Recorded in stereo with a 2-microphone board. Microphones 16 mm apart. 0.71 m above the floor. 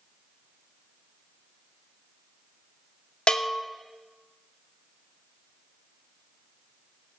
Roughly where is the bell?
Left.